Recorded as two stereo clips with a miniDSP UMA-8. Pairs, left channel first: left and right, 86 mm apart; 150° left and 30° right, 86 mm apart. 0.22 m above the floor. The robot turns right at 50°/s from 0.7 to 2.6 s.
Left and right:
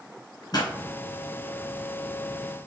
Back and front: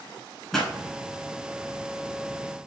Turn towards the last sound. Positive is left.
turn(degrees=160)